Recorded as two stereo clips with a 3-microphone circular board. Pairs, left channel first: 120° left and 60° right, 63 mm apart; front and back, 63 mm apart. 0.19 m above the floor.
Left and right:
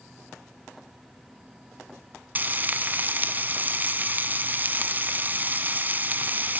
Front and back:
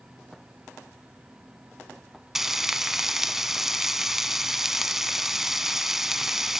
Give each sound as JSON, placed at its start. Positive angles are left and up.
{"t": 2.4, "sound": "frying", "azimuth_deg": -95, "distance_m": 1.5}